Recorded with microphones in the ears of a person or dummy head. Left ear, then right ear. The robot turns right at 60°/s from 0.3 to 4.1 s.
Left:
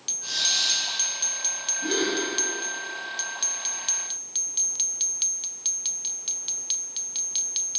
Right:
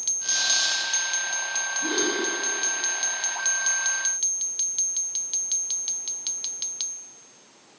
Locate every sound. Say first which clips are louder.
0.2 s a squeak: left 1 dB; 40° right (ahead or behind), 1.4 m; by 0.8 s 55° right (ahead or behind), 1.4 m
1.8 s a gasp: left 1 dB; centre (ahead or behind), 2.0 m; by 2.2 s 20° right (ahead or behind), 2.0 m